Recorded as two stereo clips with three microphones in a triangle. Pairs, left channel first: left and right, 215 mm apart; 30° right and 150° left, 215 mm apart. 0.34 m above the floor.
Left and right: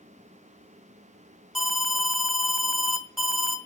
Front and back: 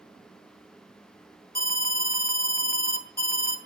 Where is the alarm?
Straight ahead, 2 m.